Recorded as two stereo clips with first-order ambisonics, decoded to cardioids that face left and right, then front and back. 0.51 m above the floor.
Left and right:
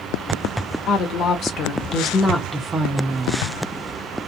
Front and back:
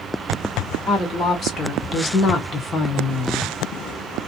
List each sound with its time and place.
0.9 s a woman speaking: 65° left, 1.3 m; by 3.5 s 80° right, 1.0 m